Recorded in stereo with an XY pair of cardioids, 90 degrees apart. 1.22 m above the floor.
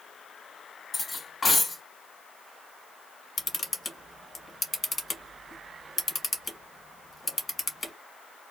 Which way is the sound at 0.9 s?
30° left.